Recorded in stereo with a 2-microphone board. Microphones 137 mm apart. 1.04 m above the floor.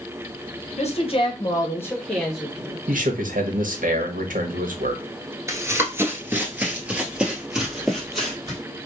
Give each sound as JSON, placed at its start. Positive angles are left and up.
{"t": 0.8, "sound": "a woman speaking", "side_deg": 50, "distance_m": 0.9}
{"t": 2.9, "sound": "a man speaking", "side_deg": -75, "distance_m": 1.1}
{"t": 5.5, "sound": "running footsteps", "side_deg": -20, "distance_m": 1.0}